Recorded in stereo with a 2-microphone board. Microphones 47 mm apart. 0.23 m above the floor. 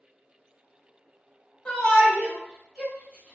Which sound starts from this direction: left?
A shout, at 1.6 s.